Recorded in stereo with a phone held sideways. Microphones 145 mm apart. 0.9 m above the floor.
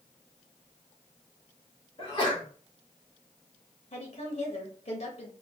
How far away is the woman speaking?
About 0.8 m.